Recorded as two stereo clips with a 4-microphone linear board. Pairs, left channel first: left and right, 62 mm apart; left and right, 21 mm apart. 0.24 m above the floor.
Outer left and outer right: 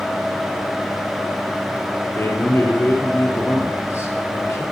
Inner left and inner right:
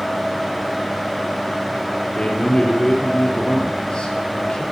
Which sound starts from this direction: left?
A man speaking, at 2.1 s.